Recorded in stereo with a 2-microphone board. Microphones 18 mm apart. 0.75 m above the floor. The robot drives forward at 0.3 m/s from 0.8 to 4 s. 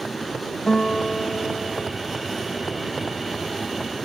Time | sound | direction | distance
0.7 | a guitar | 45° left (ahead or behind) | 0.6 m